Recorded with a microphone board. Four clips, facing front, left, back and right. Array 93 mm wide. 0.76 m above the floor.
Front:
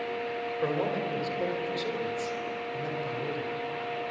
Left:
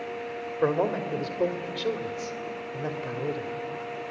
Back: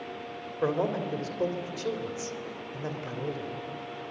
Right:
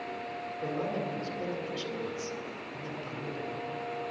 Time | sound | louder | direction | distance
0.6 | a man speaking | left 9 dB, back 3 dB | 105° left | 2.5 m